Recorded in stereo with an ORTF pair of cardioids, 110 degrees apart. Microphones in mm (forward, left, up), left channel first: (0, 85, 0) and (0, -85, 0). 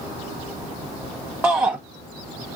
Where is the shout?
10° right, 0.7 m.